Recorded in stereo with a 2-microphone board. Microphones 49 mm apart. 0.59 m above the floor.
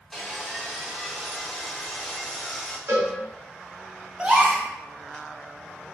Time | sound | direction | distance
0.1 | sawing | 5° left (ahead or behind) | 0.8 m
2.9 | a cowbell | 70° right (ahead or behind) | 1.2 m
4.2 | a gasp | 25° right (ahead or behind) | 1.0 m